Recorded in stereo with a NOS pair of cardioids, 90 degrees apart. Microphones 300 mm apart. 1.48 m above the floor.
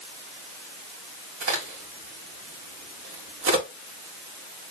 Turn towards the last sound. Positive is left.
turn(degrees=-50)